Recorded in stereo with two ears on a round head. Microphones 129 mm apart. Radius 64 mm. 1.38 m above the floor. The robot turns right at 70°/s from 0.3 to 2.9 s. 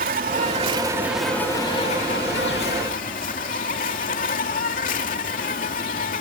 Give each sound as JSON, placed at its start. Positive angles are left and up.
{"t": 0.0, "sound": "an insect", "azimuth_deg": -65}